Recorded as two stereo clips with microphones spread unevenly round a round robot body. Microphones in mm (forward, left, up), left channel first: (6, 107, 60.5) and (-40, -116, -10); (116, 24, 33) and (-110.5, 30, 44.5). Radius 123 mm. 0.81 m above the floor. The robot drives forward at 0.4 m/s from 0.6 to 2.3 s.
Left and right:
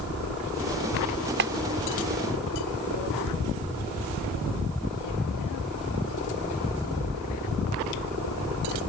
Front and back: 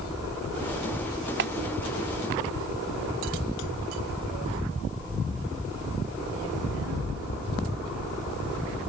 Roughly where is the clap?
Behind right.